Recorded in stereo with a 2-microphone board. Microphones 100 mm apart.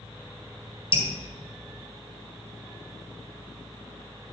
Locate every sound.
0.9 s dripping: 60° left (ahead or behind), 2.5 m